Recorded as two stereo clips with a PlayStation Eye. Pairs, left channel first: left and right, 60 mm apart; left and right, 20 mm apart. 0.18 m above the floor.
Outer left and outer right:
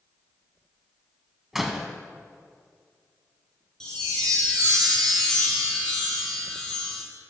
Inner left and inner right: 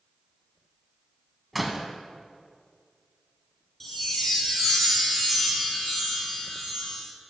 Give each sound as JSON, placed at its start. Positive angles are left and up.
{"t": 1.5, "sound": "a door slam", "side_deg": -5, "distance_m": 0.7}
{"t": 3.8, "sound": "a chime", "side_deg": 10, "distance_m": 1.9}